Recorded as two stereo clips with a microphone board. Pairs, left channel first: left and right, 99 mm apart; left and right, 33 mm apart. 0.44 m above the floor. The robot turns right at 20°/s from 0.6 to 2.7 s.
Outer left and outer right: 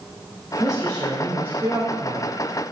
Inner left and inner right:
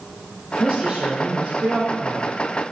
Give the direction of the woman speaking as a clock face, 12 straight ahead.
6 o'clock.